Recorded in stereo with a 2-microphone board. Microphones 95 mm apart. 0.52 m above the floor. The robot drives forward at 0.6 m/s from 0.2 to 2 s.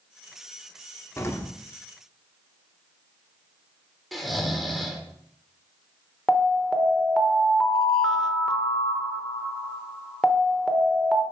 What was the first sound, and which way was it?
An explosion, 30° left (ahead or behind).